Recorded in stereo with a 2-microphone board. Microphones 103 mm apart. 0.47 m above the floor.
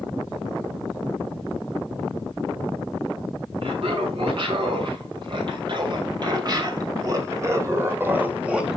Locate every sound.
3.6 s laughter: 60° right (ahead or behind), 4 m; by 8.8 s 5° right (ahead or behind), 1.6 m